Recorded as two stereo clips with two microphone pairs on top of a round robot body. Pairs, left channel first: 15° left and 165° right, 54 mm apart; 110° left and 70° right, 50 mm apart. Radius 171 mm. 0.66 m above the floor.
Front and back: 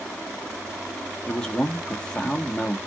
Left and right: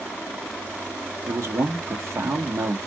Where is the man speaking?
60° right, 1.3 m.